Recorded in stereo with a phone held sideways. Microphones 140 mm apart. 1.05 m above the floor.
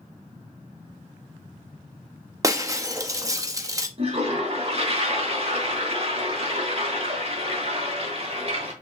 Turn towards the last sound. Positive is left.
turn(degrees=-45)  # may be behind; listen again after turning